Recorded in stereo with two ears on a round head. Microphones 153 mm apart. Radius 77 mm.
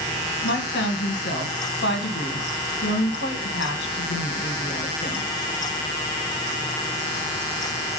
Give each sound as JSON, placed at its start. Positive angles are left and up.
{"t": 0.4, "sound": "a woman speaking", "side_deg": 70, "distance_m": 1.8}